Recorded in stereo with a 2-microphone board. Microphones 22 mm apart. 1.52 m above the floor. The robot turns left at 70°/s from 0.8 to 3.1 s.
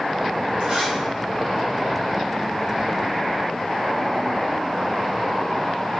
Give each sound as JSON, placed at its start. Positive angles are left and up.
{"t": 0.6, "sound": "a zipper", "side_deg": -80, "distance_m": 3.5}